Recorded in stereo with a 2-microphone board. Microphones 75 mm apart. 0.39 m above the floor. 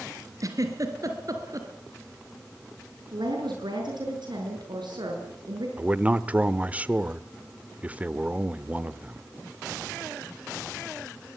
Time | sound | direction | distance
0.4 | a giggle | 50° right (ahead or behind) | 3.5 m
3.1 | a woman speaking | 75° right (ahead or behind) | 6.5 m
5.8 | a man speaking | 20° right (ahead or behind) | 0.9 m